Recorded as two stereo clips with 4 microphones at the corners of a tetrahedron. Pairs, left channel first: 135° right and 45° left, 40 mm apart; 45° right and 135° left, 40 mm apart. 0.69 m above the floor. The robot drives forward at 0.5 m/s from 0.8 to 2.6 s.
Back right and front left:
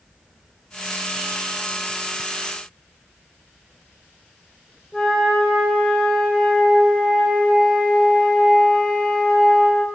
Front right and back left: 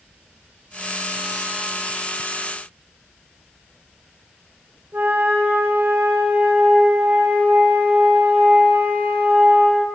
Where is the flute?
140° left, 1.6 m.